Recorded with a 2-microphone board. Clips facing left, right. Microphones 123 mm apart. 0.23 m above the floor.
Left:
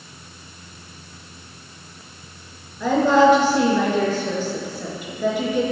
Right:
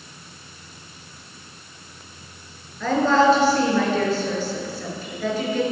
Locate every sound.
2.8 s a woman speaking: 15° left (ahead or behind), 4.5 m